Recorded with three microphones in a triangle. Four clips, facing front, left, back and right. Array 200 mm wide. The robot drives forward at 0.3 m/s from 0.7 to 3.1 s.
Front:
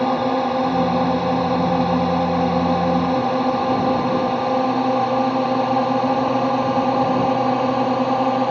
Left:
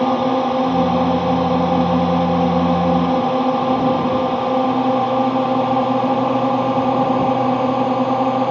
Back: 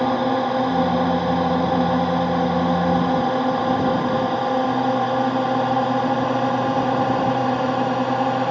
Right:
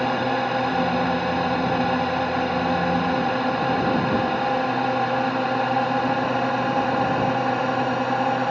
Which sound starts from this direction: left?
A drone, at 0.0 s.